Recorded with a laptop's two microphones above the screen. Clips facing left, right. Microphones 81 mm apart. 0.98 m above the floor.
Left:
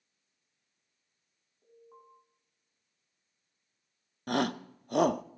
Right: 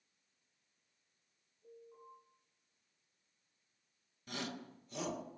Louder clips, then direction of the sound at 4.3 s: Left 14 dB; 60° left (ahead or behind).